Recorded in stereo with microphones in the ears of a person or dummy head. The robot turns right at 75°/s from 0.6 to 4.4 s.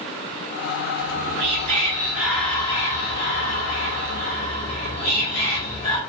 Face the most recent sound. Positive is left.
turn(degrees=165)